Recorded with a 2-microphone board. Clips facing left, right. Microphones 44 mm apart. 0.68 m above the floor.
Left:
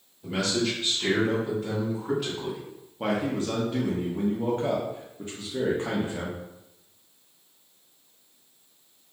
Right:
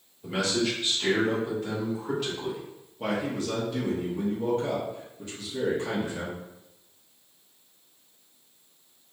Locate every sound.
0.2 s a man speaking: 10° right (ahead or behind), 1.1 m; by 2.6 s 5° left (ahead or behind), 1.8 m
3.0 s a man speaking: 35° left (ahead or behind), 0.7 m